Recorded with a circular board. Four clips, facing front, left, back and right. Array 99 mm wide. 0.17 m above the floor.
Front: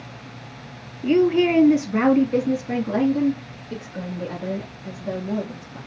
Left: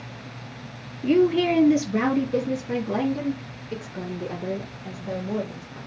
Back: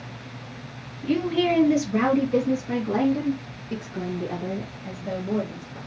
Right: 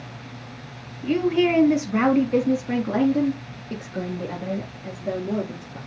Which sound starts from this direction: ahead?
A woman speaking, at 1.0 s.